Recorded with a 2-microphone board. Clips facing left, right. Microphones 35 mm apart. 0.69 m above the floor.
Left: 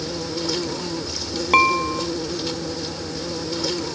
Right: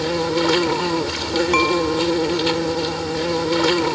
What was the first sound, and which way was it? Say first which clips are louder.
An insect: right 8 dB; 50° right (ahead or behind).